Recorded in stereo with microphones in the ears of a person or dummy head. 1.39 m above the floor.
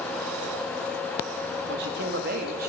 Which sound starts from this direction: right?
A man speaking, at 1.7 s.